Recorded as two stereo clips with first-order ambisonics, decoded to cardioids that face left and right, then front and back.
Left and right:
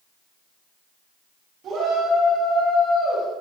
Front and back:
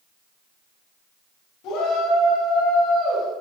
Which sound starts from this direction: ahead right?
A shout, at 1.6 s.